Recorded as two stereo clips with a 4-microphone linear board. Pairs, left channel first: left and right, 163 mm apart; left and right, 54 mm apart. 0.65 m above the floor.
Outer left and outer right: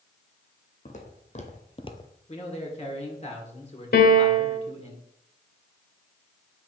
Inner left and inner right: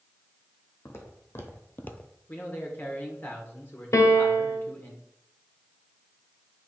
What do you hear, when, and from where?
0.8 s footsteps: 50° left (ahead or behind), 1.9 m; by 2.1 s 15° left (ahead or behind), 0.6 m
2.3 s a man speaking: 40° left (ahead or behind), 1.6 m
3.9 s a piano: 65° left (ahead or behind), 1.1 m